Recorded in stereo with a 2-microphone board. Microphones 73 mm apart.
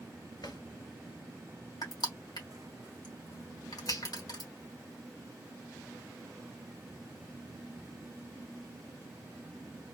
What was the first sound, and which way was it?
A drawer, 85° left.